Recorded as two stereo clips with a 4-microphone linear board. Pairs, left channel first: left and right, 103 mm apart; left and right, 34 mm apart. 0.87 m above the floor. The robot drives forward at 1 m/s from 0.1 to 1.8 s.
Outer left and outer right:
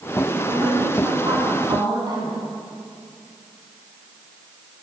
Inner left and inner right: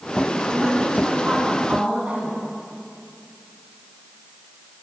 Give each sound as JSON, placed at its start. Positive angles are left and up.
{"t": 0.3, "sound": "a woman speaking", "side_deg": -50, "distance_m": 9.0}